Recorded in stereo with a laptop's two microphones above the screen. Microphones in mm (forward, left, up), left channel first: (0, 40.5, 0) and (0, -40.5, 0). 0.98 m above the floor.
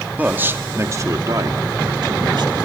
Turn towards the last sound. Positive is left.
turn(degrees=-70)  # may be behind; listen again after turning